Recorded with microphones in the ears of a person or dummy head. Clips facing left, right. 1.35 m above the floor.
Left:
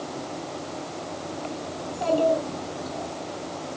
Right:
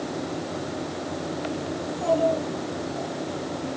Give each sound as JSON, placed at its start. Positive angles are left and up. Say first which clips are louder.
{"t": 1.8, "sound": "a child speaking", "louder": "even", "side_deg": 80, "distance_m": 7.5}